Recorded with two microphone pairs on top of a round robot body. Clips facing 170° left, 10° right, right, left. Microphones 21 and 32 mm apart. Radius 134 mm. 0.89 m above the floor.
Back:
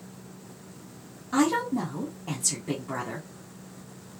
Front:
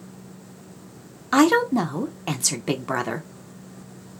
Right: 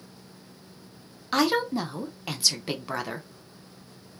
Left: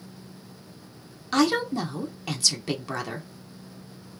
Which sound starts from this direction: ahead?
A woman speaking, at 1.3 s.